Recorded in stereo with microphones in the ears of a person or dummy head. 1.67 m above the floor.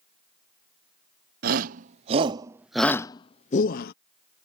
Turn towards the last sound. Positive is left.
turn(degrees=60)  # may be behind; listen again after turning